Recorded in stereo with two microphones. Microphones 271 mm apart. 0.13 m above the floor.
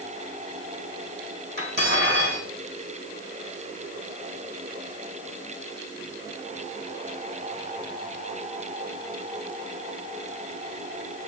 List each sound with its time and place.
1.6 s cutlery clinking: 35° right (ahead or behind), 4 m